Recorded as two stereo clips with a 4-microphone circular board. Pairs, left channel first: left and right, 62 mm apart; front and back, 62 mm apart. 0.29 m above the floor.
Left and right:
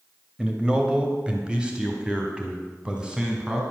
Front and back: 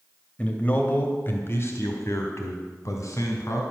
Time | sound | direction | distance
0.4 | a man speaking | 40° right | 1.2 m